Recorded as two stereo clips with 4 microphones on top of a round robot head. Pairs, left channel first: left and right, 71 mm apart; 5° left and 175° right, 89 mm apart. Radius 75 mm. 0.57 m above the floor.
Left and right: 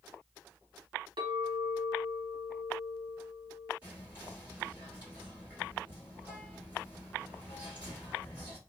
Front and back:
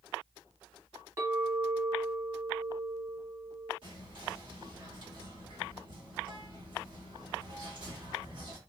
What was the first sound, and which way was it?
A clink, 115° right.